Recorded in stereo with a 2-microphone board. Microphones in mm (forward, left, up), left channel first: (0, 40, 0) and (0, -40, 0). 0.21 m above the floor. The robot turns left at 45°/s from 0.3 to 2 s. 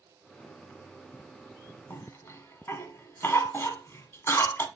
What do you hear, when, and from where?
1.9 s a cough: 35° left (ahead or behind), 1.3 m